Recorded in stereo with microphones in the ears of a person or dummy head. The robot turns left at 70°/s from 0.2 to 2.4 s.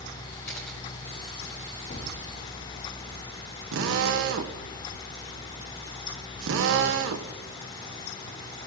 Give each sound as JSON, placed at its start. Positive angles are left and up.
{"t": 0.5, "sound": "a camera shutter", "side_deg": 10, "distance_m": 1.1}
{"t": 1.9, "sound": "a gunshot", "side_deg": 40, "distance_m": 1.8}
{"t": 3.7, "sound": "a drill", "side_deg": -70, "distance_m": 1.1}